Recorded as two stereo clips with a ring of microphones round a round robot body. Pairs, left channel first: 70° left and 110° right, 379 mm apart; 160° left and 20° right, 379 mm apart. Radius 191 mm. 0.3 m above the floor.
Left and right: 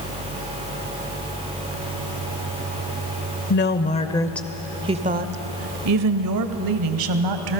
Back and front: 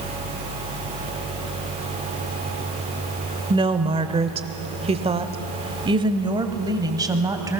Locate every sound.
3.5 s a woman speaking: 45° left, 1.1 m; by 7.6 s 105° right, 1.9 m